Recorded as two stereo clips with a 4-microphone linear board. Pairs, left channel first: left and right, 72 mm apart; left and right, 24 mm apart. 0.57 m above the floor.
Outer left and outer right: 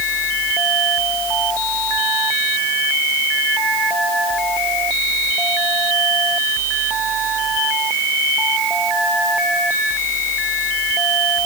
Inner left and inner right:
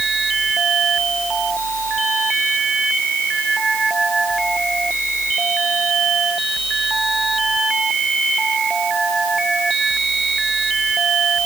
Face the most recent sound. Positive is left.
No sound to turn to.